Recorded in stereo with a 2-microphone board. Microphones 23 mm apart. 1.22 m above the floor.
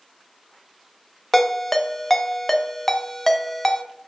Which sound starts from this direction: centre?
A ringtone, at 1.3 s.